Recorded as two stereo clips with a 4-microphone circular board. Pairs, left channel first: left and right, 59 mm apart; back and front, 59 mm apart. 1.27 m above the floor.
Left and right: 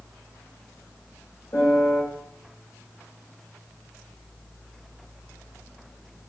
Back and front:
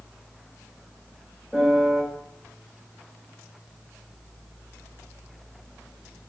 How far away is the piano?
About 1.5 m.